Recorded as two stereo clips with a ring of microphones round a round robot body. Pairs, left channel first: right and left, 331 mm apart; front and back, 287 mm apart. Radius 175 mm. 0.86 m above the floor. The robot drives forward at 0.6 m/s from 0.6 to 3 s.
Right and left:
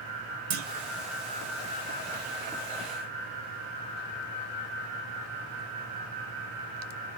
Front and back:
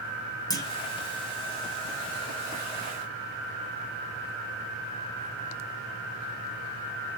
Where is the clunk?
80° left, 1.3 m.